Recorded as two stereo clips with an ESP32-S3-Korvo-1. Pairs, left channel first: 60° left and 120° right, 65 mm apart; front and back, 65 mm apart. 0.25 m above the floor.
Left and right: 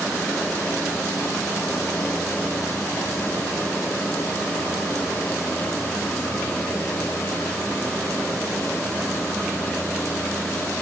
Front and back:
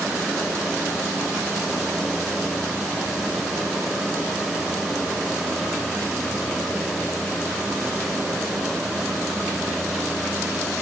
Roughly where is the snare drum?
No snare drum in this recording.